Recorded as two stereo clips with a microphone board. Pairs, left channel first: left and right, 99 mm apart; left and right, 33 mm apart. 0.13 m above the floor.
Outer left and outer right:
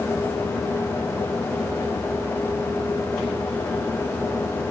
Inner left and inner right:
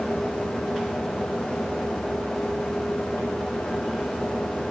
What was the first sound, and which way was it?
Only background noise.